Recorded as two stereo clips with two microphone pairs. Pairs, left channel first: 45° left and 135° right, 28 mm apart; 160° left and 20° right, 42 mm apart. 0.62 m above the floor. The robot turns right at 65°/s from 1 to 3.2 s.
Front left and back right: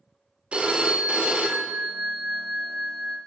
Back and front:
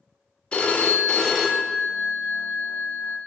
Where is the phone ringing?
145° right, 0.5 m; by 3.2 s straight ahead, 0.5 m.